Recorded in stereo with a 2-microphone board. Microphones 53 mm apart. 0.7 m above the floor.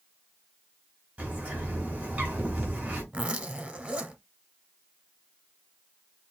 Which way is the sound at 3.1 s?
20° right (ahead or behind).